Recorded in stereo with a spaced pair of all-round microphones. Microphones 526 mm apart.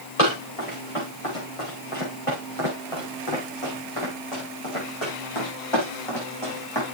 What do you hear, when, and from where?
0.2 s running footsteps: 80° left, 7.5 m; by 6.8 s 50° left (ahead or behind), 5 m